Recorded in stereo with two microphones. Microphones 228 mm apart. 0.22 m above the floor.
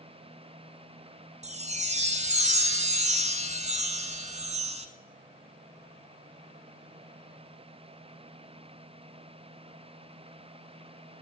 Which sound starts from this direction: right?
A chime, at 1.4 s.